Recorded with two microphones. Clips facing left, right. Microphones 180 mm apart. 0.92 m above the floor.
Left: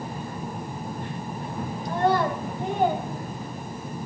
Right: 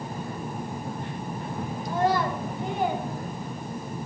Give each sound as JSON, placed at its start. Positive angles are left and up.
{"t": 1.9, "sound": "a child speaking", "side_deg": 60, "distance_m": 3.0}